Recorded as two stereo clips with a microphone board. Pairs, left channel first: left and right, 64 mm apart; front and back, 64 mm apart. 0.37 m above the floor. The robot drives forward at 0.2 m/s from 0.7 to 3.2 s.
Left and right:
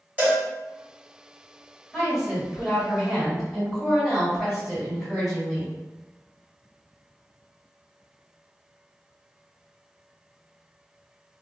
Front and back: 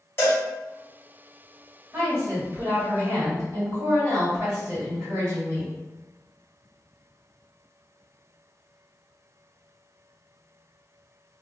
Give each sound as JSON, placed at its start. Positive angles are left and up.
{"t": 0.2, "sound": "a cowbell", "azimuth_deg": -35, "distance_m": 1.8}
{"t": 1.9, "sound": "a woman speaking", "azimuth_deg": -170, "distance_m": 1.8}